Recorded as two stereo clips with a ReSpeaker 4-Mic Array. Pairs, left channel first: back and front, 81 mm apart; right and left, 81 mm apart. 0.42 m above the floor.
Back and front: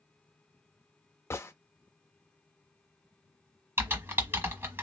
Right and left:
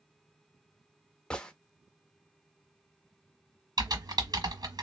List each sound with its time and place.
1.3 s a gunshot: 160° right, 0.5 m
3.8 s typing on a keyboard: 60° left, 1.3 m